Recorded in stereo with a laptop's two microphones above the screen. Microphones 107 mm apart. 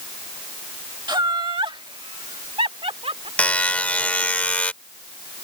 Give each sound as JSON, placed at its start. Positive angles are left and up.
{"t": 1.1, "sound": "laughter", "side_deg": -45}
{"t": 3.4, "sound": "a buzzer", "side_deg": 15}